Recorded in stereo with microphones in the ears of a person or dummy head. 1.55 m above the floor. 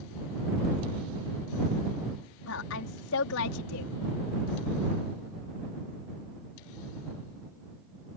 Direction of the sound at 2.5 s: 65° left (ahead or behind).